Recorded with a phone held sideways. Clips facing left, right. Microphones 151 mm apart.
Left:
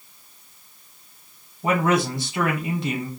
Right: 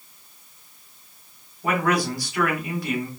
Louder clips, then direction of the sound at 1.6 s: Left 2 dB; 25° left (ahead or behind).